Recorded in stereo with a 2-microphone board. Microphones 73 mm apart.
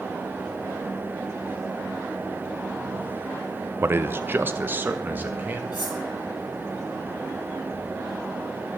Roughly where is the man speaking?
Right.